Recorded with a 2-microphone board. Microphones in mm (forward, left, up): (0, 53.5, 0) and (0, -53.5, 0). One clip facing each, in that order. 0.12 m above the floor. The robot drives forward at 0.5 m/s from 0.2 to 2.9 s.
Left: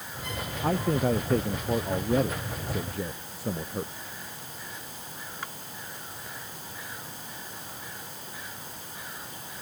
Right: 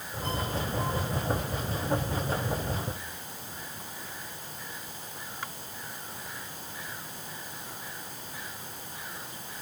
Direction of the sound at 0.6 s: 65° left (ahead or behind).